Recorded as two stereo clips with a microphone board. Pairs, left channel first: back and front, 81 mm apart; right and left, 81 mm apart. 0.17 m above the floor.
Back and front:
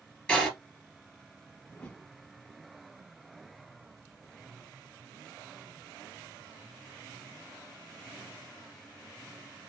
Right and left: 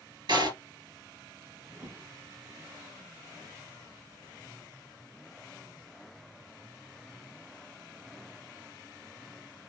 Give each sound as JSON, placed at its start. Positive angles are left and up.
{"t": 0.3, "sound": "a door slam", "azimuth_deg": 100, "distance_m": 2.5}
{"t": 1.7, "sound": "a whoosh", "azimuth_deg": 120, "distance_m": 1.0}